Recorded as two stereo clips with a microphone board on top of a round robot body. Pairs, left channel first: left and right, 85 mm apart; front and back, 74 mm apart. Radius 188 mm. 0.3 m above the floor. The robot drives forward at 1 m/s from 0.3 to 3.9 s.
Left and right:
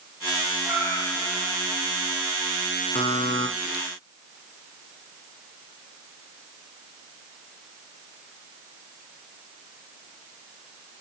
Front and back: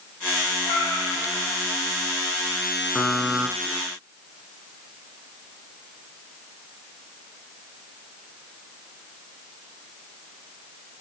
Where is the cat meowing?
10° left, 6.5 m.